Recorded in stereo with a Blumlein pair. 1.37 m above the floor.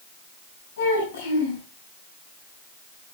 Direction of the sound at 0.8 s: 60° left.